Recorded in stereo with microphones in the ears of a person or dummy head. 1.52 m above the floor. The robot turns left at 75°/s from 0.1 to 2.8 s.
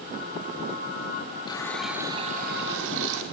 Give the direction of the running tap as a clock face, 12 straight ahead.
11 o'clock.